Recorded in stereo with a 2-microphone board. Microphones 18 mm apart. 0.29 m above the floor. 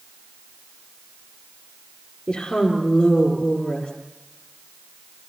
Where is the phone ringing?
I don't hear a phone ringing.